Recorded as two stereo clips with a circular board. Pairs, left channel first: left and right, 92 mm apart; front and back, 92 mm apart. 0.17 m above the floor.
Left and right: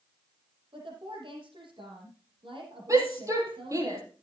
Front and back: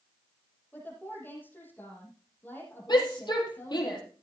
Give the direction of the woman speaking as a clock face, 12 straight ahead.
2 o'clock.